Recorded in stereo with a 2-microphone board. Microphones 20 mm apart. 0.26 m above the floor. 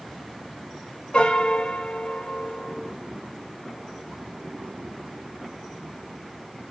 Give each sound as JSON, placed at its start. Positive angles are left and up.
{"t": 1.1, "sound": "a piano", "side_deg": 45, "distance_m": 0.5}